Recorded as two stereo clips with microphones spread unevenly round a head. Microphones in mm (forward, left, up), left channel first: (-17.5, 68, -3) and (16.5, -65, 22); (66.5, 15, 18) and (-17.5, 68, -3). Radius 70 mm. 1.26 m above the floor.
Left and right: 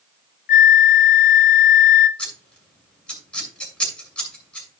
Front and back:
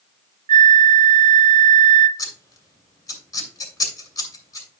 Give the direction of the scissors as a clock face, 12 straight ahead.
11 o'clock.